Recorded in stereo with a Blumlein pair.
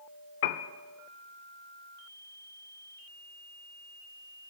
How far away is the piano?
About 0.6 m.